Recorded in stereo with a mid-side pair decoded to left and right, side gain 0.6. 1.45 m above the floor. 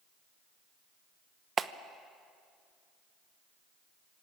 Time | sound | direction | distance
1.6 | a clap | 35° right | 1.0 m